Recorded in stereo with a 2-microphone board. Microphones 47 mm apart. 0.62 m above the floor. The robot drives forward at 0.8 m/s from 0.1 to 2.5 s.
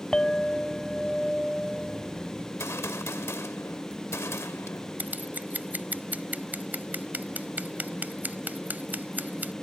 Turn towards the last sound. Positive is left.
turn(degrees=-40)  # may be behind; listen again after turning